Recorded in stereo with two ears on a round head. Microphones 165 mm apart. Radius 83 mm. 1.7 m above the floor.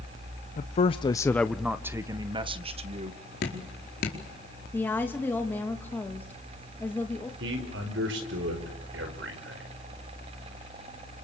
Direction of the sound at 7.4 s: 65° right (ahead or behind).